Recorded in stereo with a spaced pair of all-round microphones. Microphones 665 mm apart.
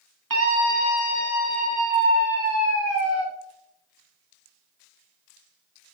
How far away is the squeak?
No squeak in this recording.